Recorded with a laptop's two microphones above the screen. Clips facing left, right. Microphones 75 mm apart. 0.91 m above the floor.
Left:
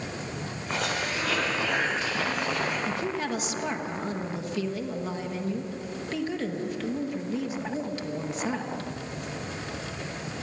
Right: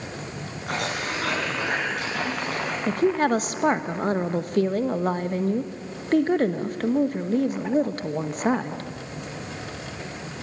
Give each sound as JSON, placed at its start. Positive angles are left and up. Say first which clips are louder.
{"t": 0.7, "sound": "a cough", "louder": "right 2 dB", "side_deg": -85, "distance_m": 7.5}
{"t": 2.9, "sound": "a woman speaking", "louder": "right 9 dB", "side_deg": -50, "distance_m": 0.9}